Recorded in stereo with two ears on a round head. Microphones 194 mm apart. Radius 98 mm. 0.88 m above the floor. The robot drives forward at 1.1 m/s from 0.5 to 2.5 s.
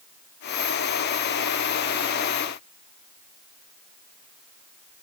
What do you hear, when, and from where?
Only background noise.